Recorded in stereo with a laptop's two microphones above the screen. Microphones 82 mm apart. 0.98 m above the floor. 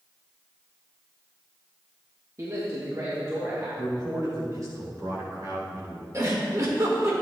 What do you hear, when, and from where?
2.4 s a man speaking: 40° right (ahead or behind), 1.3 m; by 3.7 s 45° right (ahead or behind), 2 m
3.8 s a man speaking: 50° right (ahead or behind), 3.5 m
6.1 s a giggle: 40° right (ahead or behind), 1.7 m